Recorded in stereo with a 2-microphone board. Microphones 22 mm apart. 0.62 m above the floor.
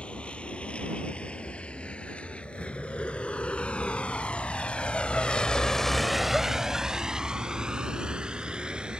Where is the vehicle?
70° left (ahead or behind); by 9.0 s 55° right (ahead or behind).